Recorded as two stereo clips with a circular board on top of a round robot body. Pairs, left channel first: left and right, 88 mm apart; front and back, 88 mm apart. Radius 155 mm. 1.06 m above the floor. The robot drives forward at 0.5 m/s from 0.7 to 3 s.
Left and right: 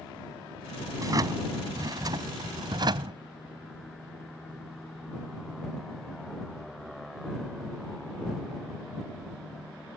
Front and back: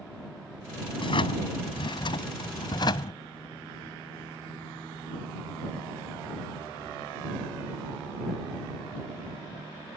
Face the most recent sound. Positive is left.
turn(degrees=-45)